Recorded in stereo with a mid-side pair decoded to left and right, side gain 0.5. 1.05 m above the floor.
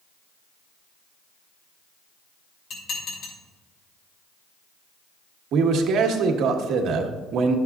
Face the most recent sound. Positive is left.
turn(degrees=-65)